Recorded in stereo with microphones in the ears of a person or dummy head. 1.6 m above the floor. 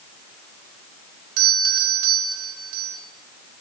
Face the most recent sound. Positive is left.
turn(degrees=-75)  # may be behind; listen again after turning